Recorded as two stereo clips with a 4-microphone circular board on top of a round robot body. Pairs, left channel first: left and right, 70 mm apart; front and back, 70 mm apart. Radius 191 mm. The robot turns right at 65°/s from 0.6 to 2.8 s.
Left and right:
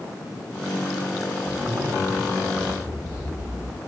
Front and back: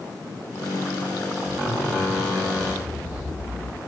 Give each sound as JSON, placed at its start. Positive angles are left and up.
{"t": 1.5, "sound": "a zipper", "azimuth_deg": -135, "distance_m": 1.4}